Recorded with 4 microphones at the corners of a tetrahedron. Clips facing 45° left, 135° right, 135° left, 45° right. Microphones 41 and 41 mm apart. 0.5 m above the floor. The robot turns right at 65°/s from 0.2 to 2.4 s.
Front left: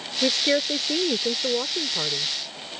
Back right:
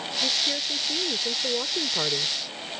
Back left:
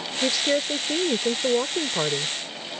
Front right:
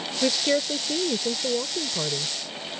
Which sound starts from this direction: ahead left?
A woman speaking, at 0.2 s.